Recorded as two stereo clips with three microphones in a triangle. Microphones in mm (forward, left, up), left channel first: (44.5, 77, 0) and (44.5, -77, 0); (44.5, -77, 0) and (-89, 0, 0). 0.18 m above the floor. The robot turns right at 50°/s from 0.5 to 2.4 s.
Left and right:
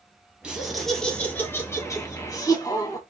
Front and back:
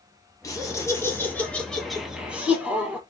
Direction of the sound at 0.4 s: 15° right.